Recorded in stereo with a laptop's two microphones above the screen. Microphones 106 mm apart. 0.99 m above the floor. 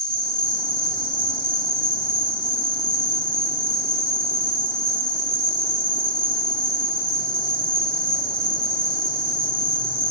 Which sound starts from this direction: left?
An insect, at 0.0 s.